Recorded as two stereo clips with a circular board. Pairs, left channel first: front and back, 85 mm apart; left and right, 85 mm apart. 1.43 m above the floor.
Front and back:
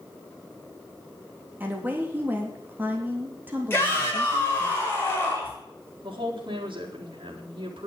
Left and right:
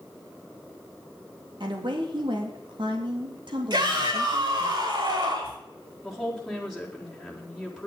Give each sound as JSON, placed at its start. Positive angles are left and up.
{"t": 1.6, "sound": "a woman speaking", "azimuth_deg": -110, "distance_m": 3.0}
{"t": 3.7, "sound": "a shout", "azimuth_deg": -65, "distance_m": 6.5}
{"t": 6.0, "sound": "a woman speaking", "azimuth_deg": 180, "distance_m": 4.0}